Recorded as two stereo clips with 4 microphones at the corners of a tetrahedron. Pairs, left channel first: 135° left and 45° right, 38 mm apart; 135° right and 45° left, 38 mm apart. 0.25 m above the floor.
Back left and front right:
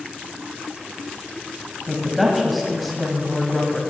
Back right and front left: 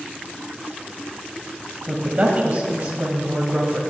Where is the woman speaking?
45° left, 1.3 m.